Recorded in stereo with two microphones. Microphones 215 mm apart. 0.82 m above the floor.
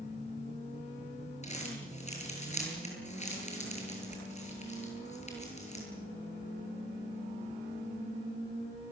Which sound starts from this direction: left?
Crumpling, at 1.4 s.